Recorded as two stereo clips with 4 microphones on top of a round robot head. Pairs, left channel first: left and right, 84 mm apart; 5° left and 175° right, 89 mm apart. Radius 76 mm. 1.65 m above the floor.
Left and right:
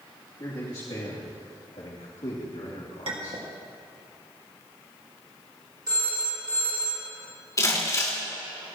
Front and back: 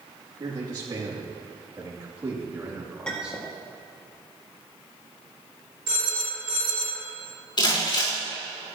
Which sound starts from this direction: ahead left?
Crumpling, at 7.6 s.